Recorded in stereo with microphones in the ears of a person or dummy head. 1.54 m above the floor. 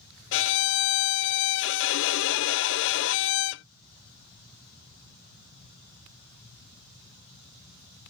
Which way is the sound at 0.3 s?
70° left (ahead or behind).